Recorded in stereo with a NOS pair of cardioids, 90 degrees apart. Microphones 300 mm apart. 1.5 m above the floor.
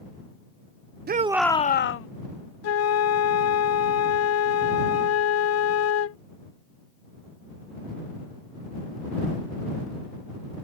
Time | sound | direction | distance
1.1 | a shout | 35° right | ?
2.6 | a flute | 55° left | ?